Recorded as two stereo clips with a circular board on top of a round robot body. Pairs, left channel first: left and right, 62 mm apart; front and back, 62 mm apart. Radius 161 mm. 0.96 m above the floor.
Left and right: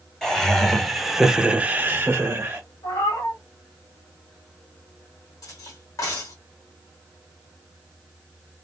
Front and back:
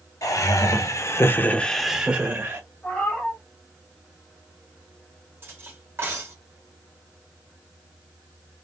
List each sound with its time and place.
0.2 s laughter: 10° left, 1.9 m; by 2.6 s 140° right, 1.3 m
2.8 s a cat meowing: 70° left, 1.3 m
5.4 s cutlery clinking: 125° left, 1.4 m